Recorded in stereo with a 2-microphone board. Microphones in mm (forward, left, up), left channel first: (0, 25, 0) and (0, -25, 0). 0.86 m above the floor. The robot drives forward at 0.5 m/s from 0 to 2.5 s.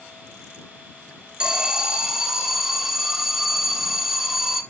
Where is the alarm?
15° right (ahead or behind), 0.6 m; by 4.6 s 10° right (ahead or behind), 1.0 m.